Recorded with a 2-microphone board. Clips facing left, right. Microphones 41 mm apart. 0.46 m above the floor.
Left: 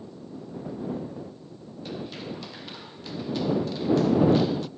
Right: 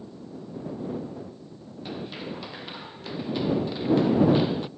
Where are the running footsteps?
10° right (ahead or behind); by 4.7 s 20° right (ahead or behind).